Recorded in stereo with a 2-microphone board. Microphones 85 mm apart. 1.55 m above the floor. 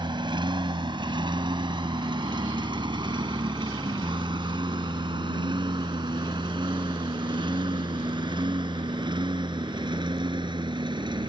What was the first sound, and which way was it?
A lawn mower, 70° right (ahead or behind).